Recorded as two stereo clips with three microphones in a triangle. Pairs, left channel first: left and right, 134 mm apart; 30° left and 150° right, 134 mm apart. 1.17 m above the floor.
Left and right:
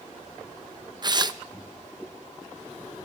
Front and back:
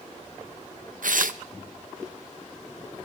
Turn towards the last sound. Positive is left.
turn(degrees=-150)